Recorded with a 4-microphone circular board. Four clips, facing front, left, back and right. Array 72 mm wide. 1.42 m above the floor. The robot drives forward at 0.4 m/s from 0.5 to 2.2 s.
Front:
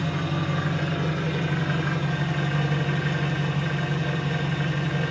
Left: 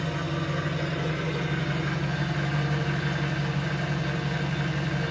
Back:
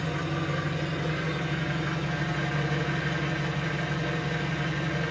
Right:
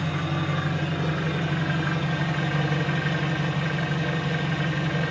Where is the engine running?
40° right, 1.6 m; by 5.1 s 70° right, 1.2 m.